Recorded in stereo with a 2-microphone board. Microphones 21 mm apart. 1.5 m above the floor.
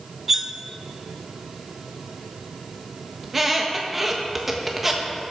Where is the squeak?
10° right (ahead or behind), 1.3 m.